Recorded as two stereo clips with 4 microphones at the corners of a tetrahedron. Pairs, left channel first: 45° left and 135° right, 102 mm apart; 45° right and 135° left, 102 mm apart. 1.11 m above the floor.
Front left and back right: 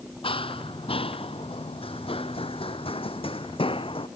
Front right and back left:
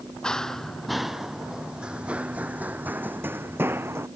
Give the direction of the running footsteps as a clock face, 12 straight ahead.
11 o'clock.